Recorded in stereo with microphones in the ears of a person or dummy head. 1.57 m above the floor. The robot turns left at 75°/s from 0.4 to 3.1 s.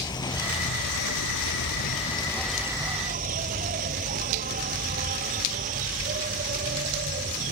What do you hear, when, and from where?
0.0 s an insect: 160° left; by 7.5 s 45° right